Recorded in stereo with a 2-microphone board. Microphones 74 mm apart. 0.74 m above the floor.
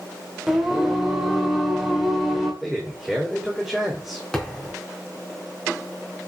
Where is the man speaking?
Centre (ahead or behind), 2.5 m.